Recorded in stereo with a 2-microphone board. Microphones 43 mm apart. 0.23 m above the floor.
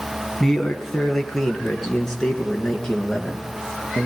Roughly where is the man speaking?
Centre.